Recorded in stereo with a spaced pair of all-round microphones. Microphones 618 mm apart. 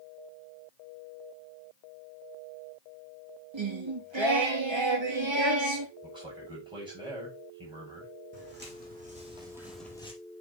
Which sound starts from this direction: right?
Singing, at 3.5 s.